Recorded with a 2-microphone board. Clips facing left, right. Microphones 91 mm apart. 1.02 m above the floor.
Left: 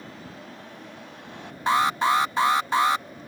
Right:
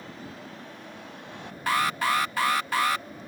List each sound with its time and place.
1.7 s an alarm: 25° left (ahead or behind)